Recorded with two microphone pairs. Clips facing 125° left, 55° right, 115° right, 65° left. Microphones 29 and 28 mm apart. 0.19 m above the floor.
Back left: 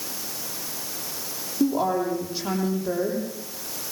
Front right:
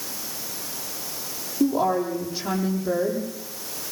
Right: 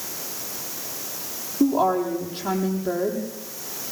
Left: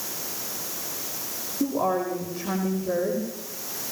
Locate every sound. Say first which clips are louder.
1.6 s a woman speaking: front right 1 dB, right 5 dB; 145° right, 9 m